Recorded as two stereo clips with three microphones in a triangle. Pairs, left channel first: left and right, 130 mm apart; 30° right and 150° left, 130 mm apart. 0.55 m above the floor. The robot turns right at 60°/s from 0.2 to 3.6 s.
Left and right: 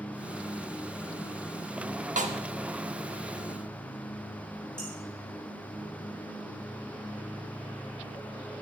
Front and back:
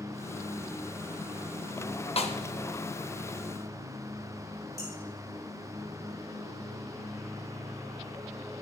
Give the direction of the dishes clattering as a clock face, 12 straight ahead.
9 o'clock.